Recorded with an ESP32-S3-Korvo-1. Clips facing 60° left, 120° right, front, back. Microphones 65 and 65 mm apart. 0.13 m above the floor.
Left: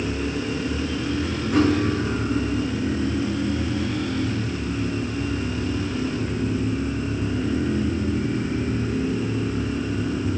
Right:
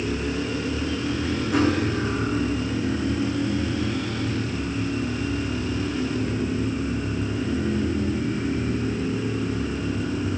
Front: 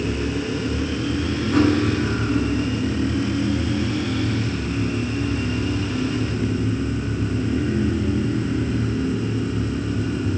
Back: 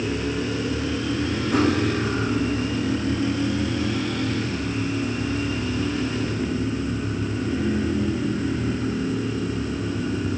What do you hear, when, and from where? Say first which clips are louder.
1.5 s cutlery clinking: left 3 dB, front 3 dB; 155° left, 6 m